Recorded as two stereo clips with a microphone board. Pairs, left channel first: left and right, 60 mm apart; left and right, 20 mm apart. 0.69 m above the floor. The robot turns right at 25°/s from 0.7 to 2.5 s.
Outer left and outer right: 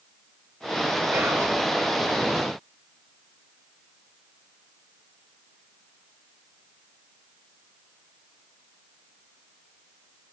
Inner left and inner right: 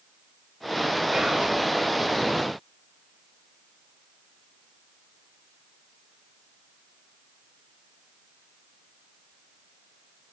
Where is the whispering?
45° right (ahead or behind), 0.8 m; by 1.6 s 40° right (ahead or behind), 0.8 m.